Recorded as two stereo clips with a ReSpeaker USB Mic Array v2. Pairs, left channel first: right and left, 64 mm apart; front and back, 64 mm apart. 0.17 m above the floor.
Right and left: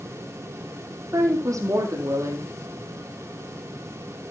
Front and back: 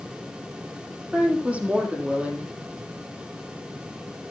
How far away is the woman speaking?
About 5 m.